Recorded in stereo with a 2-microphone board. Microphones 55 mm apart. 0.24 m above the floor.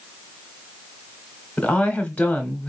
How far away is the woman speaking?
About 1.2 m.